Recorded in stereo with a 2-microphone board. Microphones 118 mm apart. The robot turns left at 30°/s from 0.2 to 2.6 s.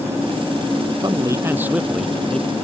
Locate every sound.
1.0 s a man speaking: 145° right; by 2.5 s 170° left